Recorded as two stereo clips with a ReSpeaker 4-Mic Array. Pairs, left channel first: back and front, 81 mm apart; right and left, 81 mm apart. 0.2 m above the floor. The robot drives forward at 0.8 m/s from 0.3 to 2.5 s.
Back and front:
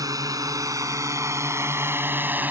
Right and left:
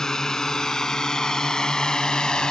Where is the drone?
10° right; by 2.5 s 25° right.